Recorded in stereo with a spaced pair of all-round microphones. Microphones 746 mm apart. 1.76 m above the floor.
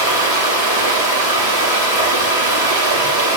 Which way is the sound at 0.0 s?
35° right (ahead or behind).